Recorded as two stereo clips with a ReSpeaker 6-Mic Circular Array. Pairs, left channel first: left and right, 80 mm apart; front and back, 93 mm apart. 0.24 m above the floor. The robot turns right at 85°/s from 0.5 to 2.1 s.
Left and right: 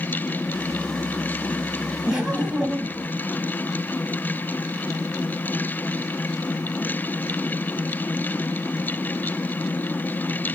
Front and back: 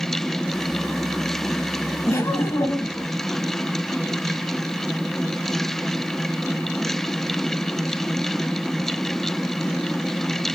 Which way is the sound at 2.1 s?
25° right.